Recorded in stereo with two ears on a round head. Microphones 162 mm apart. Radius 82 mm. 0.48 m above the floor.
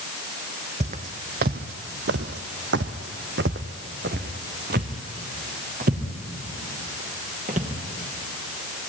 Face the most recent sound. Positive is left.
turn(degrees=-40)  # may be behind; listen again after turning